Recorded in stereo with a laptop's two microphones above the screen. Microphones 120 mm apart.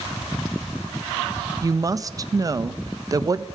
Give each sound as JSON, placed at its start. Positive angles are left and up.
{"t": 1.6, "sound": "a woman speaking", "side_deg": -30, "distance_m": 0.5}